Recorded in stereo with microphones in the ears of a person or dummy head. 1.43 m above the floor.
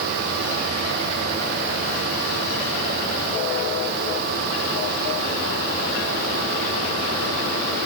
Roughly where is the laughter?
I don't hear laughter.